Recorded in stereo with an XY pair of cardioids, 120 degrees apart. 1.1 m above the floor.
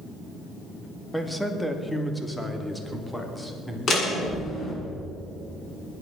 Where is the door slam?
40° left, 7.5 m.